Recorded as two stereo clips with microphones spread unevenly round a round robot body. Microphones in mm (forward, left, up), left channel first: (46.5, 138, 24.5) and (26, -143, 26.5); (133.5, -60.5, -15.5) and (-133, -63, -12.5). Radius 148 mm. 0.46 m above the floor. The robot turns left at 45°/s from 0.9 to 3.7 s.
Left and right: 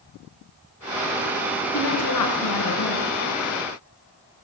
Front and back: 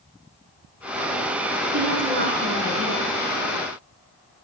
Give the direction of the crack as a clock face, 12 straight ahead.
No crack in this recording.